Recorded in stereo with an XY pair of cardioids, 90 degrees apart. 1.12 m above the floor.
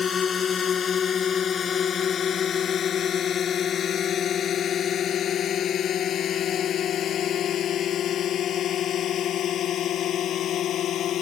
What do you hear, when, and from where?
0.0 s a drone: 50° left; by 11.2 s 75° left